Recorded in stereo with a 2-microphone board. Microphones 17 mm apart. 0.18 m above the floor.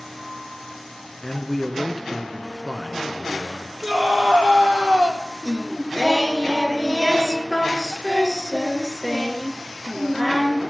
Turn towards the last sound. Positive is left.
turn(degrees=15)  # may be behind; listen again after turning